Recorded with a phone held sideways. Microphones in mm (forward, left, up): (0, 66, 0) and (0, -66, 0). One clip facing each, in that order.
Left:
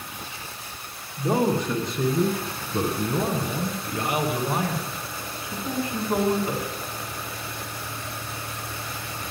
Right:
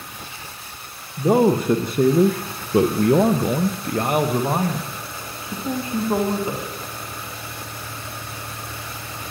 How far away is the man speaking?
About 1.1 m.